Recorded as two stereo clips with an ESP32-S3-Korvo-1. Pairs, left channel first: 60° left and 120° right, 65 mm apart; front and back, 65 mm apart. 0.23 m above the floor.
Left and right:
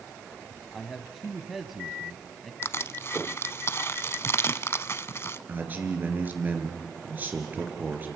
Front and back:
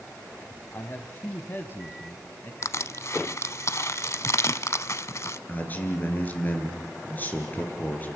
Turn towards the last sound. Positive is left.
turn(degrees=-60)